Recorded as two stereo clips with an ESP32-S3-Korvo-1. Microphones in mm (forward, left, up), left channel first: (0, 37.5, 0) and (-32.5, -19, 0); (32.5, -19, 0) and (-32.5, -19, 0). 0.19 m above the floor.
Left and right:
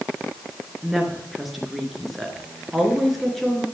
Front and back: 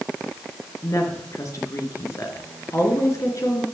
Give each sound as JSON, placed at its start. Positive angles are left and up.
{"t": 0.8, "sound": "a woman speaking", "azimuth_deg": -30, "distance_m": 3.5}